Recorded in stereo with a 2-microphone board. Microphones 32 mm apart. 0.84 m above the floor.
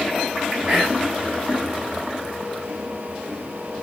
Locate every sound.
0.7 s whispering: 25° right (ahead or behind), 7 m